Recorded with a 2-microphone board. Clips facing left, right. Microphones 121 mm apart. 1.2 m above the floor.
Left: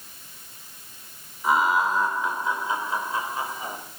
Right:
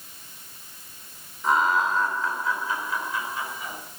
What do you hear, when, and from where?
1.4 s laughter: 5° left (ahead or behind), 4 m; by 3.8 s 40° left (ahead or behind), 5 m